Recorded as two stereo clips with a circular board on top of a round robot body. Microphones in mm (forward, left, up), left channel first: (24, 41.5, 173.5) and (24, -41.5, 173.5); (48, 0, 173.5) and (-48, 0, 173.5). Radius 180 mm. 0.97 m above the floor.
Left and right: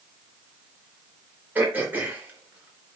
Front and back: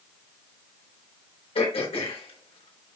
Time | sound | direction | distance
1.6 | throat clearing | 20° right | 3.5 m